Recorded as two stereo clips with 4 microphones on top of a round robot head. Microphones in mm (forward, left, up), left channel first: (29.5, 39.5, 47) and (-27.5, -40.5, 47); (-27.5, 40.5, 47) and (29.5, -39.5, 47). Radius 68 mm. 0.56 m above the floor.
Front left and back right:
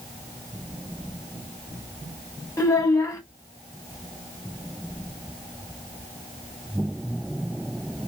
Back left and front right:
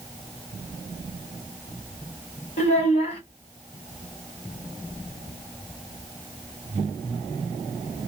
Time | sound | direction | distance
2.6 | a child speaking | 120° left | 1.2 m